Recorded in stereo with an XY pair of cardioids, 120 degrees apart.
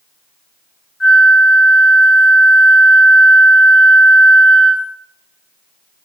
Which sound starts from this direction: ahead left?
A flute, at 1.0 s.